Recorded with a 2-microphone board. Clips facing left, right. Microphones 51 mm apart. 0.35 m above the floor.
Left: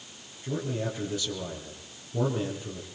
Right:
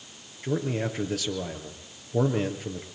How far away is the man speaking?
About 6 m.